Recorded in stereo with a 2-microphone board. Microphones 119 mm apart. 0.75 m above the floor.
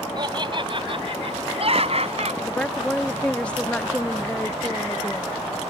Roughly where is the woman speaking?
Centre.